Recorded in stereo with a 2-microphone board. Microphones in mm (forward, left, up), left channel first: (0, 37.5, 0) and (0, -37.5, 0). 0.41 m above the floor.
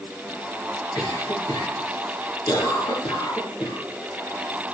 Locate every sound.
0.9 s a cough: 65° left (ahead or behind), 6 m